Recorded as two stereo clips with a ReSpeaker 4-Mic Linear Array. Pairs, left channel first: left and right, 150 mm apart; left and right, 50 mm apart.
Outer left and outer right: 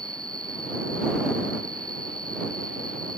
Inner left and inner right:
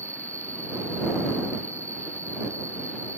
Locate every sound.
0.0 s an insect: 70° right (ahead or behind)